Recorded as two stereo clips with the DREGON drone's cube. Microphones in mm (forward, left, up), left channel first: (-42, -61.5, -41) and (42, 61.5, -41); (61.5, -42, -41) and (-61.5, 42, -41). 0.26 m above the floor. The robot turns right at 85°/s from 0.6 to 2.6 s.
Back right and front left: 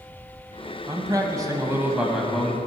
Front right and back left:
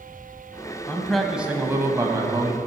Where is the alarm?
I don't hear an alarm.